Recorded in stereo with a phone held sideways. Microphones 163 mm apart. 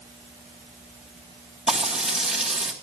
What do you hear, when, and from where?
1.7 s frying: 5° right (ahead or behind), 3 m